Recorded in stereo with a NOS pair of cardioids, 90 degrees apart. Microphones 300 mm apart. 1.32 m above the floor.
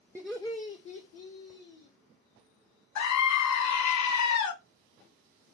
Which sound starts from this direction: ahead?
Laughter, at 0.1 s.